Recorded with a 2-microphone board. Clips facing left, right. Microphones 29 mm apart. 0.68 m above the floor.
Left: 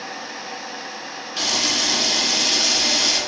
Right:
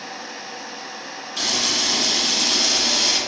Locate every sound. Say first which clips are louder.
1.4 s a camera shutter: left 1 dB; 25° left (ahead or behind), 4.5 m